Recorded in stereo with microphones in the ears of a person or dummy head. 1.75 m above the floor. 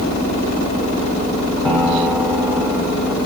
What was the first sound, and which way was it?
A piano, 5° left (ahead or behind).